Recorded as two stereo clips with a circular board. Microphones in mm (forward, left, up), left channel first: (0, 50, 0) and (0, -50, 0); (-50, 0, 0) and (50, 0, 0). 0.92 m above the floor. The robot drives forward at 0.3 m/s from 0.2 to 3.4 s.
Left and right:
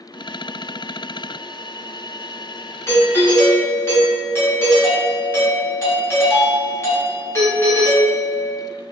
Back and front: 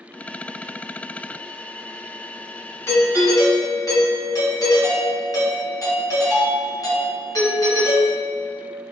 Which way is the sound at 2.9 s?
130° left.